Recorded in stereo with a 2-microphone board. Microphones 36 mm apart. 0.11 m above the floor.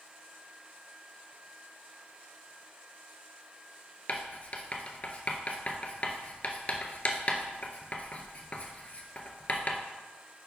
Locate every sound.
4.1 s writing: 40° left (ahead or behind), 0.5 m